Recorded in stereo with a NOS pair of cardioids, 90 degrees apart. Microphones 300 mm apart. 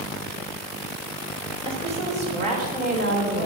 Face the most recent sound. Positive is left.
turn(degrees=-30)